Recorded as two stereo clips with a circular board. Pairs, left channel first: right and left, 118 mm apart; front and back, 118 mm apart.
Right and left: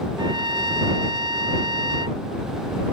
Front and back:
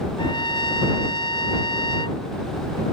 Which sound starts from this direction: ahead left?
A trumpet, at 0.2 s.